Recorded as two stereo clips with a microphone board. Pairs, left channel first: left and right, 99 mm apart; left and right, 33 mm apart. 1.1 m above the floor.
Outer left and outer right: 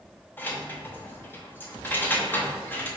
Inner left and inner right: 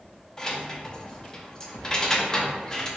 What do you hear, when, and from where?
0.4 s keys jangling: 20° left (ahead or behind), 0.7 m